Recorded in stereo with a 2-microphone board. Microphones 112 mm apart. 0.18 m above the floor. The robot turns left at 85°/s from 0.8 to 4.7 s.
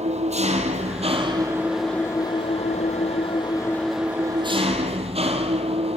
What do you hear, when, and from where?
0.0 s an engine running: 95° right, 3 m; by 6.0 s 65° right, 3 m